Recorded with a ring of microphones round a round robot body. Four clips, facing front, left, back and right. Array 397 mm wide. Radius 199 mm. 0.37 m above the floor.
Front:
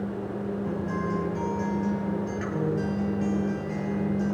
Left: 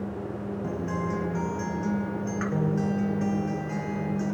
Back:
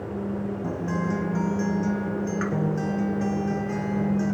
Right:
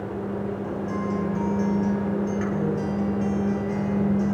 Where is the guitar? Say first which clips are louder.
Right 2 dB, back 3 dB; 155° left, 2.5 m.